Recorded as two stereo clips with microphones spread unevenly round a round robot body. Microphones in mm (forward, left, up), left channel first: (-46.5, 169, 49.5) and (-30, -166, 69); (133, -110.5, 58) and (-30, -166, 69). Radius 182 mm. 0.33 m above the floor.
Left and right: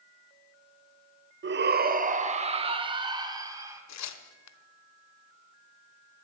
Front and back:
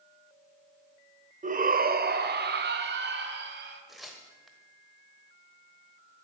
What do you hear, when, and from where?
1.4 s a shout: 135° right, 1.2 m; by 3.8 s 170° right, 3 m
3.9 s tearing paper: 105° left, 1.0 m